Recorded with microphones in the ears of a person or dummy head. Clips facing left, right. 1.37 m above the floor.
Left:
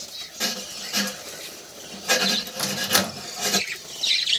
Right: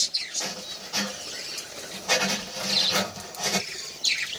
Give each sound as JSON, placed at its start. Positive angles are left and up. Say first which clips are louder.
{"t": 0.4, "sound": "writing", "louder": "left 4 dB", "side_deg": 25, "distance_m": 1.9}
{"t": 2.6, "sound": "a microwave", "louder": "left 3 dB", "side_deg": 75, "distance_m": 1.0}